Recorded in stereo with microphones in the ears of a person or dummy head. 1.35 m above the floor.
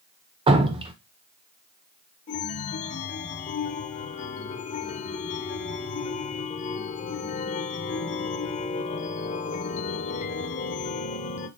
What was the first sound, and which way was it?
Dripping, 25° right (ahead or behind).